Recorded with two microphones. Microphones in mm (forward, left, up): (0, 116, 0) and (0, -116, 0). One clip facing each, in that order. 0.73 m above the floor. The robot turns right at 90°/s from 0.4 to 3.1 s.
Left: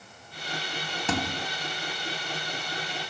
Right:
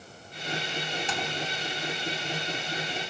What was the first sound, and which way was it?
A thud, 70° left.